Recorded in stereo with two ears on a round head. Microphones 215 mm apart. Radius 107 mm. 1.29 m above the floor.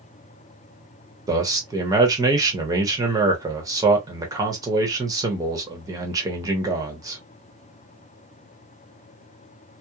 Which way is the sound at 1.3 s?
15° right (ahead or behind).